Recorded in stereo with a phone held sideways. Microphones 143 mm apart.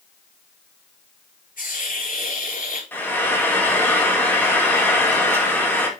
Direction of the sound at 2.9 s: 15° left (ahead or behind).